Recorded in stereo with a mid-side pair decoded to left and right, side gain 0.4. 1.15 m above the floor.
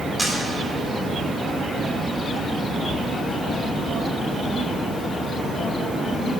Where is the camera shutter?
20° right, 2.5 m.